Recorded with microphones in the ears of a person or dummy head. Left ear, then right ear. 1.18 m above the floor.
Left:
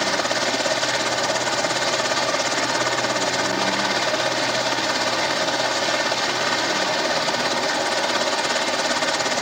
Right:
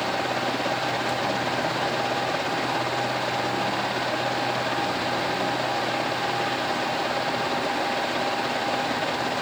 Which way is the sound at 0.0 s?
60° left (ahead or behind).